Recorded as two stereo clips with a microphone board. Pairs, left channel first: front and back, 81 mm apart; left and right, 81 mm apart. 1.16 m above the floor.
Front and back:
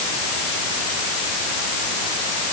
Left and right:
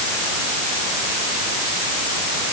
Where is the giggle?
No giggle in this recording.